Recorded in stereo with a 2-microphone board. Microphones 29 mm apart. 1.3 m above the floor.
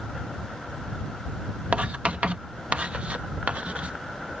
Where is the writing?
45° right (ahead or behind).